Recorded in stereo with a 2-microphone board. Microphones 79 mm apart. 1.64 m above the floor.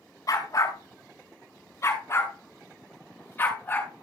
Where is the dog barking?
45° left (ahead or behind), 5 m; by 3.9 s 20° left (ahead or behind), 7 m.